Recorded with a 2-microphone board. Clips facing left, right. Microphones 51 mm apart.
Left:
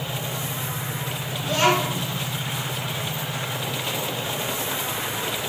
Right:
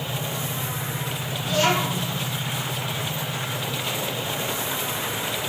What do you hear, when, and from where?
1.4 s a child speaking: 50° left (ahead or behind), 1.2 m